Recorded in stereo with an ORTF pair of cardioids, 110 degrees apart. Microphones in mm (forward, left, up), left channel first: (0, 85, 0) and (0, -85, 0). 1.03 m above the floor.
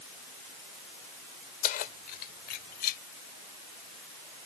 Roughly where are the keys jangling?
Ahead left.